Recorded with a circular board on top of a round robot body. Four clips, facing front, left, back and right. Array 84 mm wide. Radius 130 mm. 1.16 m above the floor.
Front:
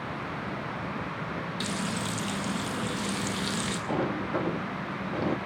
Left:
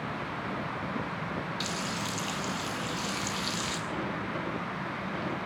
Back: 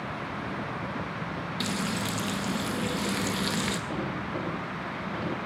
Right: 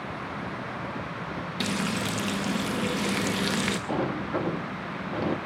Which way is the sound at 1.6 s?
100° right.